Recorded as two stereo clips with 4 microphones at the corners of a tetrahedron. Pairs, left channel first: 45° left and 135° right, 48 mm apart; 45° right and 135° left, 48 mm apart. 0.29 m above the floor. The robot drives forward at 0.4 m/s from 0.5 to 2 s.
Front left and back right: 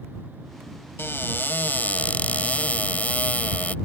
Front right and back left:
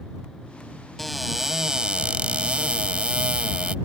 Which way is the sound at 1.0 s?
40° left.